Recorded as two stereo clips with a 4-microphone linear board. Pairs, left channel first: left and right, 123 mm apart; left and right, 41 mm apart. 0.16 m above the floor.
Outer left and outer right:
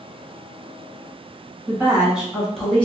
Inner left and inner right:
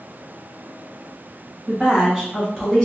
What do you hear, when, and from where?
1.7 s a woman speaking: 20° right (ahead or behind), 1.3 m; by 2.9 s 10° left (ahead or behind), 1.1 m